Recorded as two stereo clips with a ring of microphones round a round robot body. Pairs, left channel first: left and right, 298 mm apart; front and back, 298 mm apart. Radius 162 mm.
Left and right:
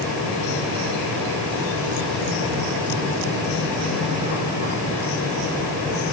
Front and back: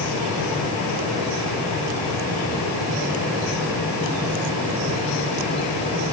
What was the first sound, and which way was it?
Only background noise.